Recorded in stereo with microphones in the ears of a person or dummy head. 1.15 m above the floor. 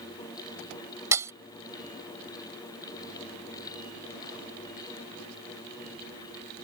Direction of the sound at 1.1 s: 15° right (ahead or behind).